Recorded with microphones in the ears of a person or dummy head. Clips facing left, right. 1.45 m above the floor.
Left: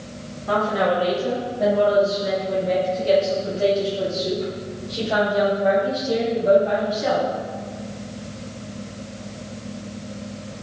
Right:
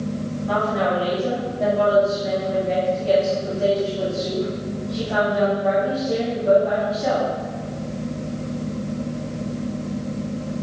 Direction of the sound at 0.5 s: 65° left (ahead or behind).